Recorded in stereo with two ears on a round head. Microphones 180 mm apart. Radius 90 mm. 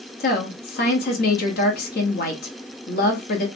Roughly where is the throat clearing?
I don't hear throat clearing.